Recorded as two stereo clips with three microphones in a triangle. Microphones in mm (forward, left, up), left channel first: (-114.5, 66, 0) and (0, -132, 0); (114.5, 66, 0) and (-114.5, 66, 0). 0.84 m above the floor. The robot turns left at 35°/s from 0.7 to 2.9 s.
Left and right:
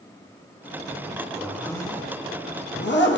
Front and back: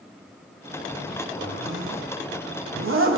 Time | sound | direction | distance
1.4 | a zipper | 150° right | 0.7 m